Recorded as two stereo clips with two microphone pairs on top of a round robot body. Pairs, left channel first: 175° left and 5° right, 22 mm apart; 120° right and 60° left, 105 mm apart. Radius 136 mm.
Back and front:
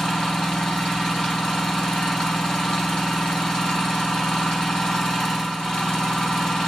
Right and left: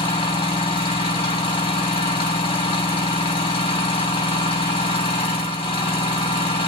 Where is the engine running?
140° right, 3.5 m.